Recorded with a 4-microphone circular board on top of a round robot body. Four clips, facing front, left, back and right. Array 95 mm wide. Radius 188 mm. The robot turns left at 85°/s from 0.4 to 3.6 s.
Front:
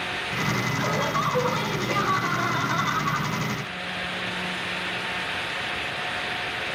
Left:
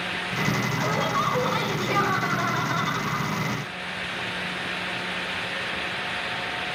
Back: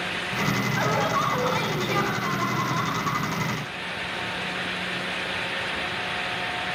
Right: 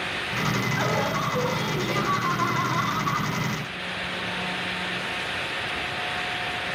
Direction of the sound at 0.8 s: 145° right.